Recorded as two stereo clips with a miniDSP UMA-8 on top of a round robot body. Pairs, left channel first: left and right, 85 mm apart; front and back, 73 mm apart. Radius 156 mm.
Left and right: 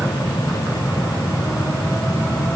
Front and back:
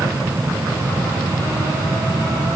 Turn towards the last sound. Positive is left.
No sound to turn to.